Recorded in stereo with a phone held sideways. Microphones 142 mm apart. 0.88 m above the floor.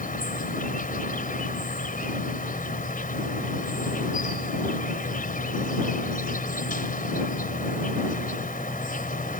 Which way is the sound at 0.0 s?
80° left.